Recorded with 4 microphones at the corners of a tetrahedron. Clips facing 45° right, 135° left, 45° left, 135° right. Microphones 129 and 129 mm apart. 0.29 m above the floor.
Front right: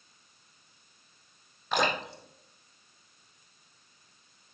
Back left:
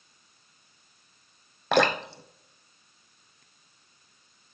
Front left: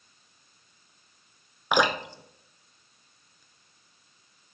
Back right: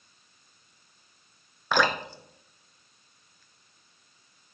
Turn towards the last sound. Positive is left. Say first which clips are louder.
# back left 6 dB, front left 1 dB
turn(degrees=120)